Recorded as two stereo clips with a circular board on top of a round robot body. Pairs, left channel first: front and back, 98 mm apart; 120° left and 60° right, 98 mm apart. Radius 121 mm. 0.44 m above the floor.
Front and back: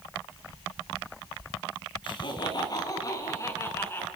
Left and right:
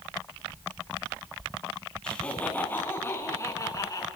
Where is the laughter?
40° left, 4.5 m; by 4.1 s 70° left, 5.5 m.